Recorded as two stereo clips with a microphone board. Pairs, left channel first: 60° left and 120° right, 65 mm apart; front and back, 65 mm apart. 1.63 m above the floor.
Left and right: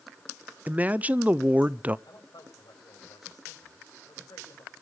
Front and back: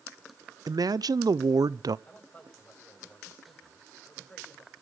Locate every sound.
0.7 s a man speaking: 175° left, 0.7 m
2.1 s a man speaking: 60° left, 8 m